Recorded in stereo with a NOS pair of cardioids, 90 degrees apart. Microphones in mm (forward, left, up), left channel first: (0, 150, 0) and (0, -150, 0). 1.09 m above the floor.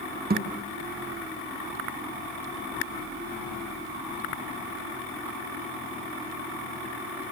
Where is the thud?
30° right, 4 m.